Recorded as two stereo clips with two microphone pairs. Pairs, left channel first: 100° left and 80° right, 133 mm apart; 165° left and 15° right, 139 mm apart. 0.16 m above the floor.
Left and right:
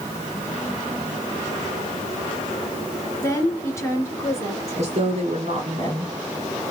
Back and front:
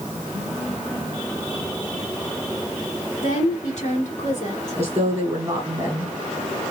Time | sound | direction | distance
3.2 | a woman speaking | 160° left | 2.5 m
4.8 | a woman speaking | 80° right | 2.0 m